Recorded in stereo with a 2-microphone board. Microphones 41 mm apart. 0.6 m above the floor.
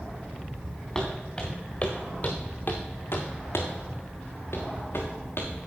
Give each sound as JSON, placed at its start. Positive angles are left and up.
{"t": 0.9, "sound": "footsteps", "side_deg": 15, "distance_m": 3.5}